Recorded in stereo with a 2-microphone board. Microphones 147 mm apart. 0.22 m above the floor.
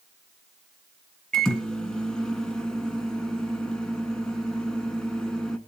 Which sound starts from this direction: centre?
A microwave, at 1.3 s.